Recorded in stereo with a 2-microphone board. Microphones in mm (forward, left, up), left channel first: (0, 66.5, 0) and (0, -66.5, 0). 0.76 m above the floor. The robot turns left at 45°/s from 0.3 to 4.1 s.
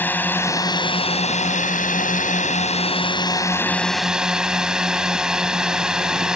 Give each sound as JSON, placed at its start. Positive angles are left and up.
{"t": 0.0, "sound": "a drone", "azimuth_deg": 165}